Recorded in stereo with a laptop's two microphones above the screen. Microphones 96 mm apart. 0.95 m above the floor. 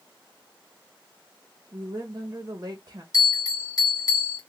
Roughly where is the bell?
Left.